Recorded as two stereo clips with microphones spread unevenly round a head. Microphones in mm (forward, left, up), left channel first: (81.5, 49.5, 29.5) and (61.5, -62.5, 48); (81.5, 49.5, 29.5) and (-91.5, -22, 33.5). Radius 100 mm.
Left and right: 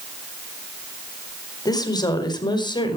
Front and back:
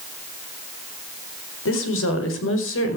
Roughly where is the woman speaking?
Ahead left.